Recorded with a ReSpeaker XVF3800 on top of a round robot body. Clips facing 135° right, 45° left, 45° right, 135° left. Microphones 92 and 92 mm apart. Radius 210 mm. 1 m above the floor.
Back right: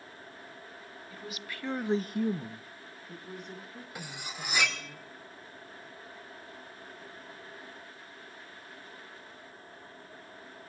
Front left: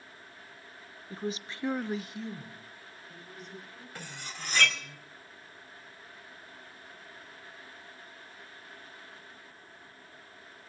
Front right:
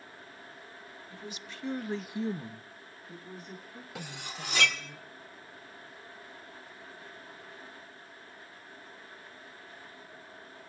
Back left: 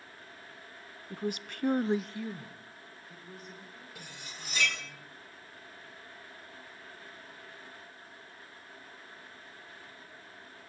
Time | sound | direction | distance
1.1 | a woman speaking | 100° left | 1.3 m
4.0 | cutlery clinking | 55° right | 2.5 m